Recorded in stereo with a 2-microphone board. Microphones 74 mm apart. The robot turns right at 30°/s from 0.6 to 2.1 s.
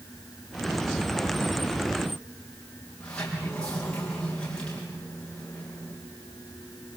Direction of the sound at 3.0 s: 15° left (ahead or behind).